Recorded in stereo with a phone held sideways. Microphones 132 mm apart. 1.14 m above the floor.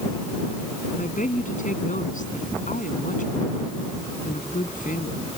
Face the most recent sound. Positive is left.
turn(degrees=90)